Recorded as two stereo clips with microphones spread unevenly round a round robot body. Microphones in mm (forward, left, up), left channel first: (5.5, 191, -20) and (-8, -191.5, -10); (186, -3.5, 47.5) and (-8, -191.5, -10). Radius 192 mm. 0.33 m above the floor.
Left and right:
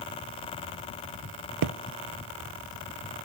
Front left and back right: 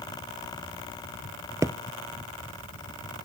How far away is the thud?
About 0.7 m.